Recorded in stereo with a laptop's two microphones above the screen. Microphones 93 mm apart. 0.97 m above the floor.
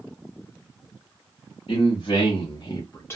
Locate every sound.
1.7 s a man speaking: 75° left (ahead or behind), 1.0 m; by 3.2 s 20° left (ahead or behind), 0.6 m